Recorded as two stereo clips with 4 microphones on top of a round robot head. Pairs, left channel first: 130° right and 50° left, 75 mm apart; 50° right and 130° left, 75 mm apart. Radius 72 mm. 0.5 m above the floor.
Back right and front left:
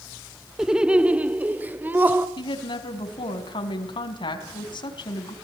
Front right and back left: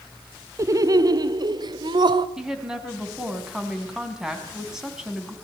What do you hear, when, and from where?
0.6 s laughter: 130° left, 0.9 m; by 2.3 s 115° left, 2 m
2.4 s a woman speaking: 145° right, 4 m